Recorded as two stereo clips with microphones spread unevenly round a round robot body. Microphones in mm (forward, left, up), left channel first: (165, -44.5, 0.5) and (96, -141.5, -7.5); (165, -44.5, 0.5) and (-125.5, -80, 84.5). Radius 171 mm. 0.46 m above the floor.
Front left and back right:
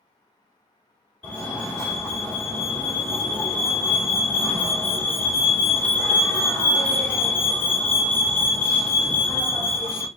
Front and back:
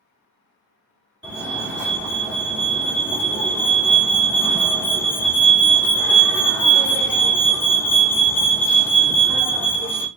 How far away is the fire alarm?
About 1.8 m.